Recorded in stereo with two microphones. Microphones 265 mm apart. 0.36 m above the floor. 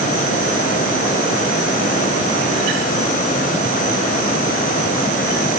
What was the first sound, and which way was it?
Only background noise.